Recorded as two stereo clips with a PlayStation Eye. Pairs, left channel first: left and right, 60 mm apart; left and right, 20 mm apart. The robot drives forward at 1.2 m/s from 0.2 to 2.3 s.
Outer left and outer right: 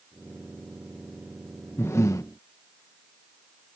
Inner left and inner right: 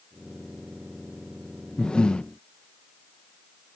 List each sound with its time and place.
1.8 s breathing: 50° left (ahead or behind); by 2.3 s 70° left (ahead or behind)